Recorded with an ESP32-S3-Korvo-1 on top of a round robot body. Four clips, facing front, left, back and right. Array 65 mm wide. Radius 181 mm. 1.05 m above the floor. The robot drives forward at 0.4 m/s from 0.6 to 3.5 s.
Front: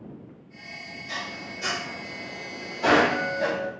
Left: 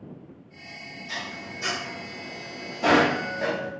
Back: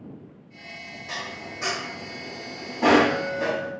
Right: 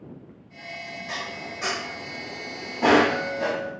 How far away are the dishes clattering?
About 0.8 m.